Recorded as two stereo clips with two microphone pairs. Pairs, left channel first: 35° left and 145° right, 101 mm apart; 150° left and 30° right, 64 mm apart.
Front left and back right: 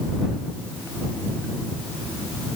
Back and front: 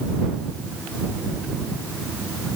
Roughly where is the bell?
I don't hear a bell.